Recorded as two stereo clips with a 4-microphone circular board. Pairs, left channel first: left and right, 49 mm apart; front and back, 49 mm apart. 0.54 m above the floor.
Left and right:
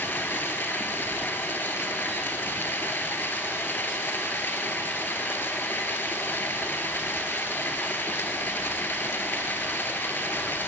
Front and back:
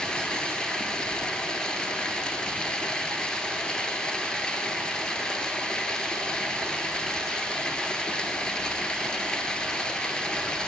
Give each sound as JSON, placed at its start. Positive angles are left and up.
{"t": 0.0, "sound": "running water", "azimuth_deg": 65, "distance_m": 0.7}